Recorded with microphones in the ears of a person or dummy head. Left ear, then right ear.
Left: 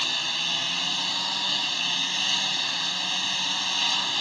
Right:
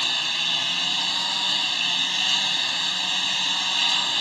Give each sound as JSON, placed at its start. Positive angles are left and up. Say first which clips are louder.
{"t": 0.0, "sound": "a lawn mower", "louder": "right 3 dB", "side_deg": -10}